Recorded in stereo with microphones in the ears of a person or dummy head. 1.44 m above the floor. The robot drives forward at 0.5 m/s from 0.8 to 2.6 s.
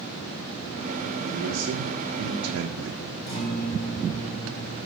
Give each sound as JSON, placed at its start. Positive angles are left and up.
{"t": 1.2, "sound": "a man speaking", "side_deg": -40, "distance_m": 1.0}
{"t": 3.3, "sound": "a guitar", "side_deg": 30, "distance_m": 2.5}